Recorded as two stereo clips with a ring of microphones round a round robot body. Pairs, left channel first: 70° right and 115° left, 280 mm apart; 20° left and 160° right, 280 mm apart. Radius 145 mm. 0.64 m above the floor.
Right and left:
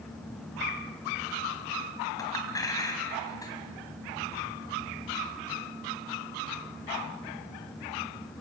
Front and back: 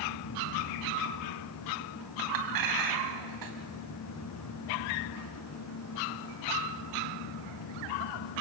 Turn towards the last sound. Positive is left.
turn(degrees=-145)